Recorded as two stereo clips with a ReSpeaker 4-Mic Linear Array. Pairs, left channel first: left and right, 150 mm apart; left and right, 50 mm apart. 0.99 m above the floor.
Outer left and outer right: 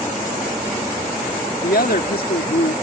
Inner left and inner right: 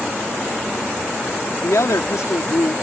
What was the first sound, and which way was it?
A woman speaking, 80° left.